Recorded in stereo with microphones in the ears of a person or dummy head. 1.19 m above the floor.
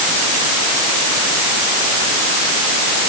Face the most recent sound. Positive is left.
No sound to turn to.